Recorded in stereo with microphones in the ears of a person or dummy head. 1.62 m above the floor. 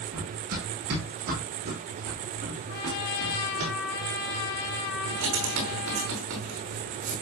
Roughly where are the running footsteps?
Right.